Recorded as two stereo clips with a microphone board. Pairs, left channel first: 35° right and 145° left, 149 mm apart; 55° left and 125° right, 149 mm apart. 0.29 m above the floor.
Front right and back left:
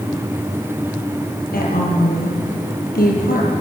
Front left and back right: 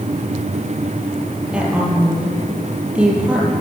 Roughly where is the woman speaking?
Ahead right.